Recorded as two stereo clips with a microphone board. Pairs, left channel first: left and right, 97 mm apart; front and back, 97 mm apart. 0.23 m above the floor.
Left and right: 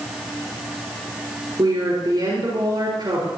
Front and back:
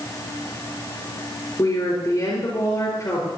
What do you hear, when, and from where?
1.6 s a woman speaking: 50° right, 4 m